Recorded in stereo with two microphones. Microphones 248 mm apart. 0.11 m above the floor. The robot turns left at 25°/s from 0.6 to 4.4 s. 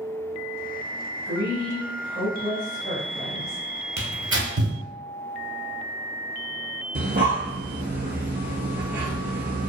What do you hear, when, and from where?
1.2 s a woman speaking: 50° right, 1.7 m; by 3.6 s 110° right, 1.7 m
4.0 s tearing paper: 45° right (ahead or behind), 1.0 m; by 4.8 s 50° right (ahead or behind), 1.0 m
7.0 s breathing: 45° right (ahead or behind), 0.5 m